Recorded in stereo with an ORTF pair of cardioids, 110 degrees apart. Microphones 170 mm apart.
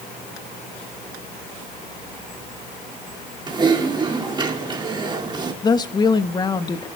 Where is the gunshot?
I don't hear a gunshot.